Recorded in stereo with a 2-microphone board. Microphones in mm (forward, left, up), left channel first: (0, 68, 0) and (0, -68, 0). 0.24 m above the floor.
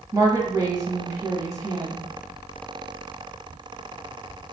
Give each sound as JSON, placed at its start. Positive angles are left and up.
{"t": 0.1, "sound": "a woman speaking", "side_deg": -30, "distance_m": 1.2}